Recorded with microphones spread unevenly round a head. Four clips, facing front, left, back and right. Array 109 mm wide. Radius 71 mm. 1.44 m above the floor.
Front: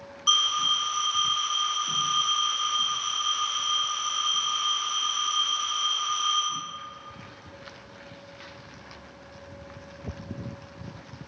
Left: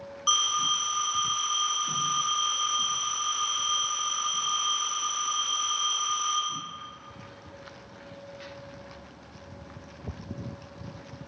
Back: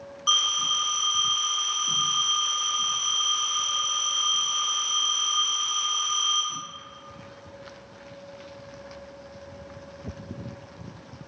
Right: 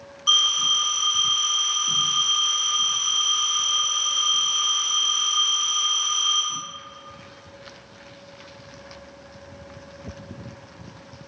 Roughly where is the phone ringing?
Behind left.